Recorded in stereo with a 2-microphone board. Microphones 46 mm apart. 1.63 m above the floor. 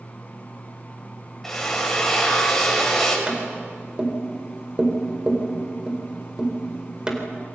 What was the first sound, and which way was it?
A drill, 10° left (ahead or behind).